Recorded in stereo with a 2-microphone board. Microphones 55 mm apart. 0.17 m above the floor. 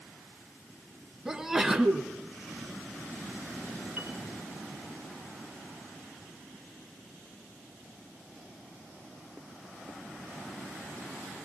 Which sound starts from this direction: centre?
A sneeze, at 1.2 s.